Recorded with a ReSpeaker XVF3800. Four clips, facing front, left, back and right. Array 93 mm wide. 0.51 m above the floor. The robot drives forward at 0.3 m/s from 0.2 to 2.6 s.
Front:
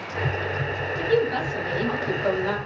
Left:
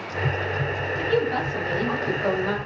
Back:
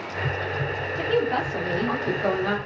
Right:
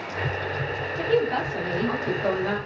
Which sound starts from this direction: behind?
A woman speaking, at 1.0 s.